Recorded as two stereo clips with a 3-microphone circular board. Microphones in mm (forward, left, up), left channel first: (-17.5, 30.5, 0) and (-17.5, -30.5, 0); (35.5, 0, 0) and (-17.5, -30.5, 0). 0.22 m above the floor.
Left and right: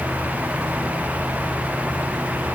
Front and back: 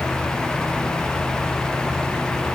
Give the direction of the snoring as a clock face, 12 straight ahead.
No snoring in this recording.